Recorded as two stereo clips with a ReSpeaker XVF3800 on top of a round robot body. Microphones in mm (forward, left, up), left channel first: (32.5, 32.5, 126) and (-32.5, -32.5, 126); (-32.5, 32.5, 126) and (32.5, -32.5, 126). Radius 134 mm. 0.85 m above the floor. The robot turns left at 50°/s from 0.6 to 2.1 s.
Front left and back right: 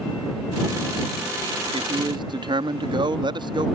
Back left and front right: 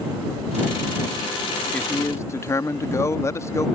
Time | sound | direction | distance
1.7 | a man speaking | 150° right | ?